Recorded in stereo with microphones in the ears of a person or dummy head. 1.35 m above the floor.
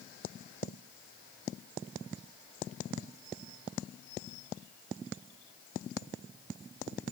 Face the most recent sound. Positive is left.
No sound to turn to.